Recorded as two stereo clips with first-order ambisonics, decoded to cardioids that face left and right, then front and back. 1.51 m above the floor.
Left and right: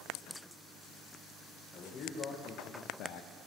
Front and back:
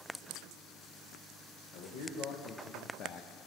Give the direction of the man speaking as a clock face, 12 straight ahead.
11 o'clock.